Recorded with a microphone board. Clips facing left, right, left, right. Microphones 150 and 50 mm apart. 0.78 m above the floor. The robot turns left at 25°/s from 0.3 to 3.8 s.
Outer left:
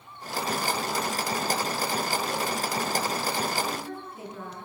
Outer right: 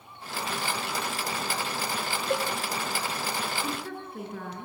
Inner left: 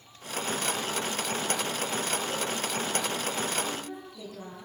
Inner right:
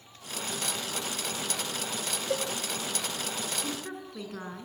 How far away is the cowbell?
About 1.8 m.